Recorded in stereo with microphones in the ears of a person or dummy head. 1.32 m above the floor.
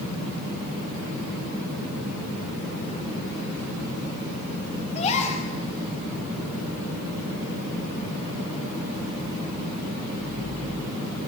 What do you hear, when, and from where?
5.0 s a gasp: 35° left (ahead or behind), 5 m